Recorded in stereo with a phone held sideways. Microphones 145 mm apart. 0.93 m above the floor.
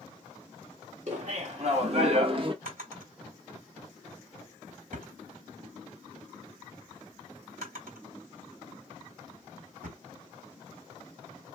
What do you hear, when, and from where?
1.1 s laughter: 55° right (ahead or behind), 1.7 m; by 2.5 s 35° right (ahead or behind), 0.9 m
2.6 s a drawer: 85° right, 3 m